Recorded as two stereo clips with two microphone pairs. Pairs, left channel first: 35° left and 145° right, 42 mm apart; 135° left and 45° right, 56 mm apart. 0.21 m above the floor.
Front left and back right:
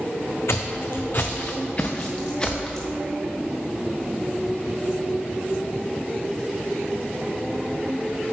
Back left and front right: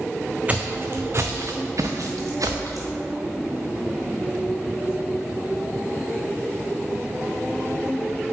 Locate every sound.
0.5 s footsteps: 25° left, 0.8 m; by 2.9 s 35° right, 1.5 m